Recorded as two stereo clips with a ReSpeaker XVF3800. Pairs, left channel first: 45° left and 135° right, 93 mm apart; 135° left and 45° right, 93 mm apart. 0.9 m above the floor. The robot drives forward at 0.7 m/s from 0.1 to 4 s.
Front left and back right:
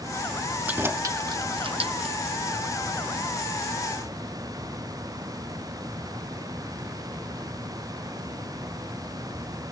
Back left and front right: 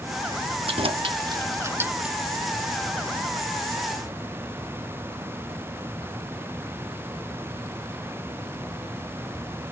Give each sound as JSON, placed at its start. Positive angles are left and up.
{"t": 0.7, "sound": "keys jangling", "azimuth_deg": -60}